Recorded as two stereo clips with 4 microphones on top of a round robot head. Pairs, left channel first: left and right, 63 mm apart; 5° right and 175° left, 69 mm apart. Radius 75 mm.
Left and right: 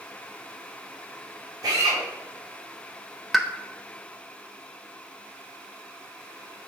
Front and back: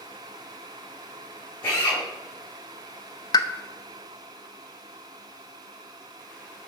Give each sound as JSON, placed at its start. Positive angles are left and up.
{"t": 1.6, "sound": "a drill", "azimuth_deg": -65, "distance_m": 5.0}
{"t": 3.3, "sound": "a pop", "azimuth_deg": 0, "distance_m": 0.8}